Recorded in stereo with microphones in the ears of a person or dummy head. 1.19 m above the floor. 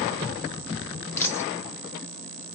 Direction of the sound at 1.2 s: 15° left (ahead or behind).